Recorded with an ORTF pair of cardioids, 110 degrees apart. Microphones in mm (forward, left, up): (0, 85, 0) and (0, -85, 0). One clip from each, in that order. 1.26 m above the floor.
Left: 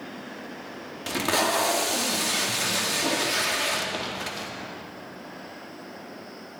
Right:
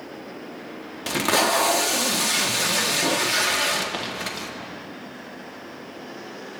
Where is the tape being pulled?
20° right, 1.6 m.